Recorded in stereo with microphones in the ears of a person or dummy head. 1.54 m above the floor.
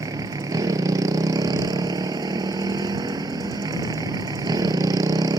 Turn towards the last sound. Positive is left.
turn(degrees=-20)  # may be behind; listen again after turning